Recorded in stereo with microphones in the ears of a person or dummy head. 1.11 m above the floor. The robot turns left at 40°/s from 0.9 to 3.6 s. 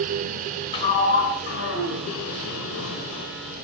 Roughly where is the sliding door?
Behind left.